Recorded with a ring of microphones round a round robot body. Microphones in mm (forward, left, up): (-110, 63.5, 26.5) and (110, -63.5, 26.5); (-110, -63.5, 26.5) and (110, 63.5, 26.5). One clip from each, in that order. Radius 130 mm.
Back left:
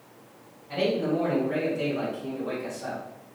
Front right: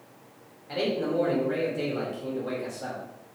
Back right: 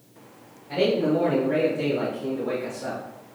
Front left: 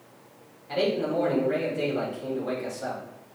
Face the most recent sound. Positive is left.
turn(degrees=-5)